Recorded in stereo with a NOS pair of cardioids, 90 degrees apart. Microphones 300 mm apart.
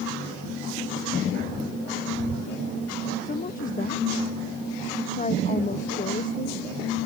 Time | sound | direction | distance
3.2 | a woman speaking | 25° left | ?